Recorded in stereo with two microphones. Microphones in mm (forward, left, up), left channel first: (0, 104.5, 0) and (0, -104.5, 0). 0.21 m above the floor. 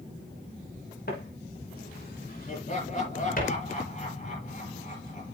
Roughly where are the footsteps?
Left.